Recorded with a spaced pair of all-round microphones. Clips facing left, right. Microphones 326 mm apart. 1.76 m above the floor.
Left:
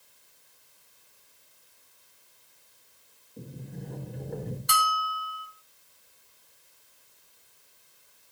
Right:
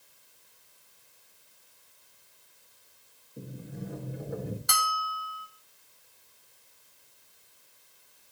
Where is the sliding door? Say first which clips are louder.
Right 1 dB; 5° right (ahead or behind), 4 m.